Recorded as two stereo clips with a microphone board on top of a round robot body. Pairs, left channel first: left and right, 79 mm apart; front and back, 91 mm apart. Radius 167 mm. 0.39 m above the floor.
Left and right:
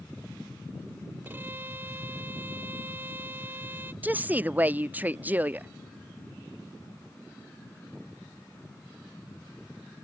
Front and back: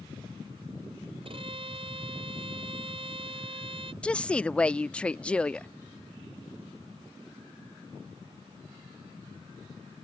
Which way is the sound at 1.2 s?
160° right.